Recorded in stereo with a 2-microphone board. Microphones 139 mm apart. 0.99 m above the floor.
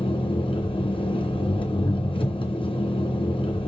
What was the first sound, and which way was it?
An engine running, 40° left (ahead or behind).